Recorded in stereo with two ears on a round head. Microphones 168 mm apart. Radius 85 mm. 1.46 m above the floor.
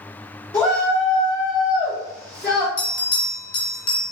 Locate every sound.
0.5 s a shout: 20° left (ahead or behind), 1.0 m
2.8 s a bell: 40° left (ahead or behind), 1.7 m